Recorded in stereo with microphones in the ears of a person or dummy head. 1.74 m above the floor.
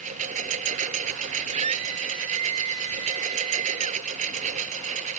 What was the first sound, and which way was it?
A lawn mower, 40° right (ahead or behind).